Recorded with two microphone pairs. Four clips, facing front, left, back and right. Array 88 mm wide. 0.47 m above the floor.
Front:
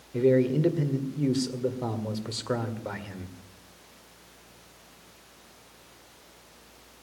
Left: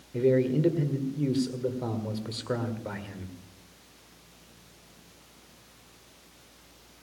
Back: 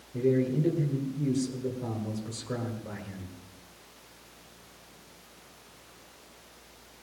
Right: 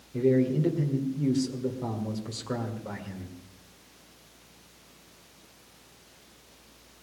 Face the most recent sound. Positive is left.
turn(degrees=15)